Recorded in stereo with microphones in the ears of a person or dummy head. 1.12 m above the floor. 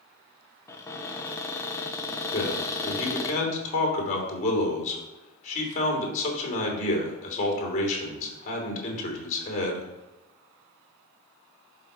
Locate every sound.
0.7 s a cupboard door: 20° left (ahead or behind), 0.9 m
2.3 s a man speaking: 45° left (ahead or behind), 3 m